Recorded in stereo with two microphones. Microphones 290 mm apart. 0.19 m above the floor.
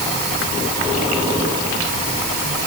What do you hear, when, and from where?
Only background noise.